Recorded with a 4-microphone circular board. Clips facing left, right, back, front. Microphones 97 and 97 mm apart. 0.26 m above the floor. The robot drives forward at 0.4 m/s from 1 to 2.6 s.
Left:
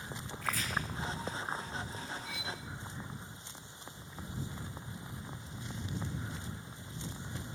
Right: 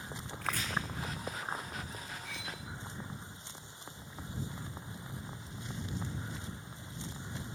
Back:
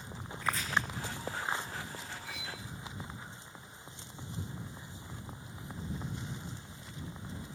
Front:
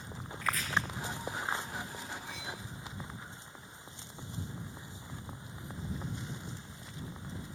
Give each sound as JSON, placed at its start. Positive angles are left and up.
{"t": 0.4, "sound": "chopping", "azimuth_deg": -120, "distance_m": 8.0}
{"t": 2.2, "sound": "cutlery clinking", "azimuth_deg": 160, "distance_m": 3.0}